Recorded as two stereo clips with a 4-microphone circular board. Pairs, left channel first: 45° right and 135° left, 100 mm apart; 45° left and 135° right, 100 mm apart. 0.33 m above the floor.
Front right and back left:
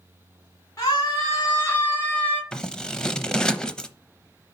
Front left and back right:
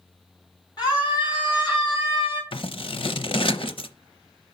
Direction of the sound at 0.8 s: 5° left.